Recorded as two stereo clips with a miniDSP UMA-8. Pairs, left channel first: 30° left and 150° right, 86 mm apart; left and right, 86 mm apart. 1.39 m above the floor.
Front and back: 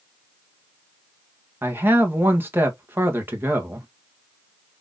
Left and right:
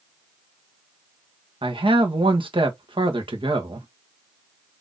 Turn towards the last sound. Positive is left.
turn(degrees=-85)